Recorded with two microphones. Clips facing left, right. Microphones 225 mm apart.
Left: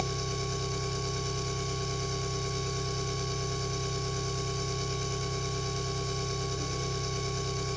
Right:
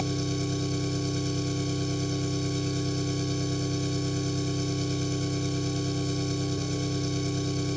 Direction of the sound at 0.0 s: 35° right (ahead or behind).